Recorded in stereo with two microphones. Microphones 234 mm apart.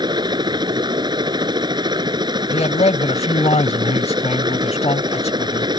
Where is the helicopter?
20° right (ahead or behind).